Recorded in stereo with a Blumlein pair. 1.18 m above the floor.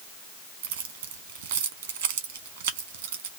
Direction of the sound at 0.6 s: 60° right.